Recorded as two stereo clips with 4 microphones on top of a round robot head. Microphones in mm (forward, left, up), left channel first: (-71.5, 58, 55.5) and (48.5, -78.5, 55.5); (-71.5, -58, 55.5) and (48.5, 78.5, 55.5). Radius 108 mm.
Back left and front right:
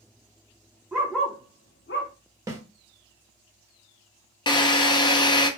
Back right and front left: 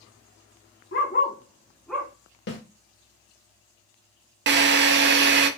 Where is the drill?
65° left, 0.6 m.